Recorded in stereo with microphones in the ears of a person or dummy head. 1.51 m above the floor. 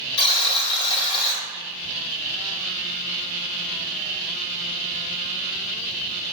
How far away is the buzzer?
About 0.6 m.